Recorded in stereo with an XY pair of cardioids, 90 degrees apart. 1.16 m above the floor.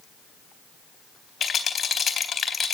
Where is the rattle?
50° left, 3.5 m.